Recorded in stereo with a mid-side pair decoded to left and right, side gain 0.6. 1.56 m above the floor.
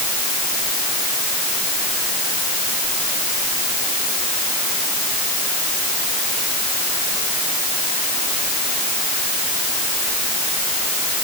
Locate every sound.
Only background noise.